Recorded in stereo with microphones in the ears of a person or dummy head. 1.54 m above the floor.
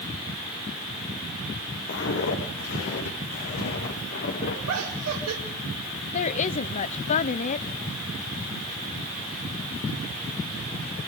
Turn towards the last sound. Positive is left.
turn(degrees=40)  # may be behind; listen again after turning